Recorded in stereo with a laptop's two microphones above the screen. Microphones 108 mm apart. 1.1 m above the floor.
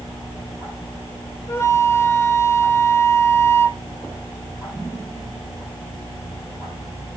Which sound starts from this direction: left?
A flute, at 1.5 s.